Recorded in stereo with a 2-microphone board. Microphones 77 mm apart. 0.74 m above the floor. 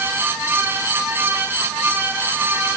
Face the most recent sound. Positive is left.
No sound to turn to.